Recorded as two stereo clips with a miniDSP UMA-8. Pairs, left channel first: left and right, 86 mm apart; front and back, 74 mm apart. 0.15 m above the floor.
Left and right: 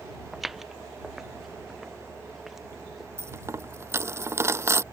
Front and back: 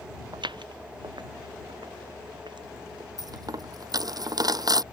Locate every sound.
0.3 s footsteps: straight behind
3.2 s a dropped coin: 150° right